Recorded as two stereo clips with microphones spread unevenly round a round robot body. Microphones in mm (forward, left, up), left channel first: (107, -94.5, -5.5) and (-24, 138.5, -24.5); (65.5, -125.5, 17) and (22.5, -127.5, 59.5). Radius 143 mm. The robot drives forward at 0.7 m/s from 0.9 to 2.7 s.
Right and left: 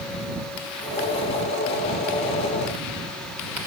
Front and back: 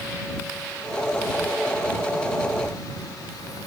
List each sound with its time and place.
Only background noise.